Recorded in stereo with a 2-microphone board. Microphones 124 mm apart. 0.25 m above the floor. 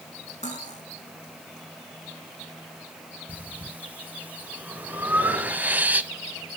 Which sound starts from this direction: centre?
Breathing, at 3.3 s.